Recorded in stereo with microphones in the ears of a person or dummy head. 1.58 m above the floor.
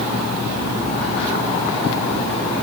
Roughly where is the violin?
I don't hear a violin.